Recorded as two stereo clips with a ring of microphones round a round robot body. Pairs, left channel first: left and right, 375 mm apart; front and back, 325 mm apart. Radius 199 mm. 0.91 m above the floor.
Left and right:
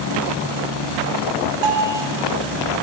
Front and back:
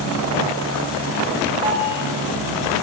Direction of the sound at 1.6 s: 100° right.